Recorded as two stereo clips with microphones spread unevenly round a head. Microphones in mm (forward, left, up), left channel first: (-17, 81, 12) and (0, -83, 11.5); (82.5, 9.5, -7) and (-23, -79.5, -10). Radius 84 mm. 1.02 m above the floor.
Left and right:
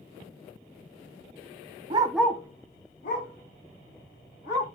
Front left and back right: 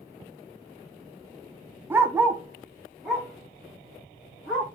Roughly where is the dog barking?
Right.